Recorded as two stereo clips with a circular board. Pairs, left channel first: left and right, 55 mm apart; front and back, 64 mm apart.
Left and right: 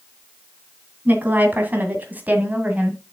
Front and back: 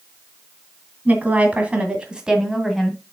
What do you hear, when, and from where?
1.1 s a woman speaking: 125° right, 2 m; by 3.0 s 90° right, 1.7 m